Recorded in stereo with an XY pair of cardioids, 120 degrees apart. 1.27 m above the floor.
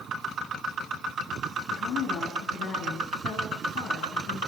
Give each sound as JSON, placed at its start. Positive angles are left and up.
{"t": 1.7, "sound": "a woman speaking", "azimuth_deg": 60, "distance_m": 10.0}